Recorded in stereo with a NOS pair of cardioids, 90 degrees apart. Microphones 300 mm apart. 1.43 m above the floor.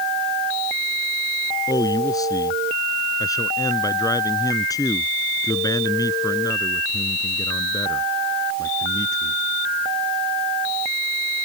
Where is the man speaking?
10° left.